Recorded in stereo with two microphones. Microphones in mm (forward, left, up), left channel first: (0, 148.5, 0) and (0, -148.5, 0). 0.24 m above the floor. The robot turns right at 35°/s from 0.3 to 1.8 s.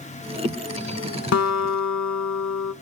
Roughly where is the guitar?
Left.